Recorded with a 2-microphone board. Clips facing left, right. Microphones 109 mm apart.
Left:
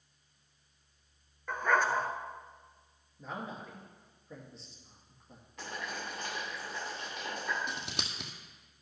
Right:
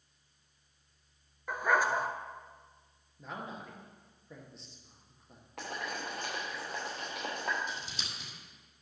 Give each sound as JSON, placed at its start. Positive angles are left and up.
{"t": 1.5, "sound": "a dog barking", "side_deg": -10, "distance_m": 0.7}
{"t": 3.2, "sound": "a man speaking", "side_deg": 0, "distance_m": 2.0}
{"t": 5.6, "sound": "boiling", "side_deg": -75, "distance_m": 4.0}
{"t": 7.7, "sound": "scissors", "side_deg": 70, "distance_m": 1.3}